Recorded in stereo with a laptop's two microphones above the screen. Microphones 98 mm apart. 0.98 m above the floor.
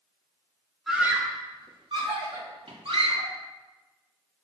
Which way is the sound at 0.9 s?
Centre (ahead or behind).